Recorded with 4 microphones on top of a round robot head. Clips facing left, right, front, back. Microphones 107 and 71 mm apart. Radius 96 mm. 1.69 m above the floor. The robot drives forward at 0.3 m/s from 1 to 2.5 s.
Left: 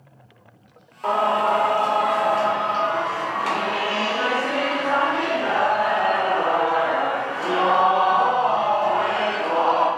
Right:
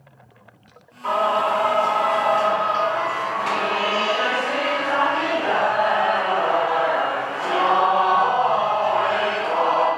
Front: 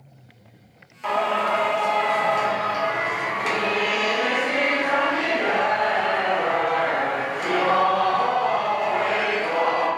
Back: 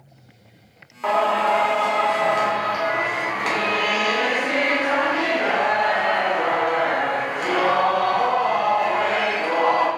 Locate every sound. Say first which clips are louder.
1.0 s singing: even, back 3 dB; 130° left, 1.1 m; by 9.9 s 145° left, 1.4 m